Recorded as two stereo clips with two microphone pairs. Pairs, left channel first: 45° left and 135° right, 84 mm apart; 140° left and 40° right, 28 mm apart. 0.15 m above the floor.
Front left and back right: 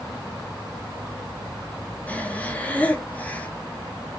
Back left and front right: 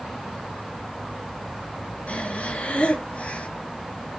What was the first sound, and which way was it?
Breathing, 110° left.